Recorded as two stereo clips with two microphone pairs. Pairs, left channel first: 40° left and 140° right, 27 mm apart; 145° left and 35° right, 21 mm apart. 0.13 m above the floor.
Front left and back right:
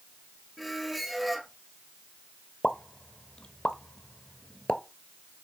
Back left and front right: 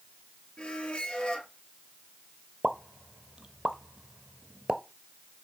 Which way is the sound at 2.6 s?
5° right.